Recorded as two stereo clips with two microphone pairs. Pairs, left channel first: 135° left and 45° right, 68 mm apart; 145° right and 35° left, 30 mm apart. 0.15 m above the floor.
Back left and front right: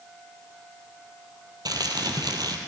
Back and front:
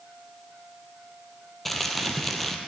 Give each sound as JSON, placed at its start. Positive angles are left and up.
{"t": 1.6, "sound": "crumpling", "azimuth_deg": -60, "distance_m": 1.4}